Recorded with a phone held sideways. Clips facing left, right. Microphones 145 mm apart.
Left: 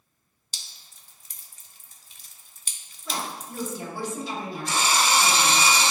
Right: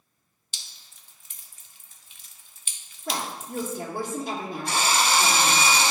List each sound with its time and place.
0.5 s dripping: 40° left (ahead or behind), 0.6 m
3.1 s a woman speaking: 55° right (ahead or behind), 1.3 m
4.7 s a drill: 65° right (ahead or behind), 1.1 m